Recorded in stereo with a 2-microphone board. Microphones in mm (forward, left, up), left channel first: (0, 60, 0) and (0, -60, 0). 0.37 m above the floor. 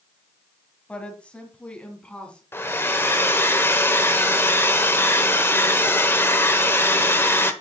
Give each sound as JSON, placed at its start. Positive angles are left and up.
{"t": 0.9, "sound": "a woman speaking", "side_deg": 10, "distance_m": 2.5}
{"t": 2.5, "sound": "a hair dryer", "side_deg": 20, "distance_m": 1.2}